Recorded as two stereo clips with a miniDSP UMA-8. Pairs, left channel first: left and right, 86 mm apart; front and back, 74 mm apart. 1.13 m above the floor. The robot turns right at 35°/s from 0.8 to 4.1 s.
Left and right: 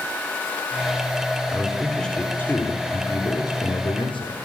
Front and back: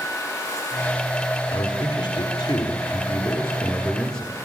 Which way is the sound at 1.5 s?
10° right.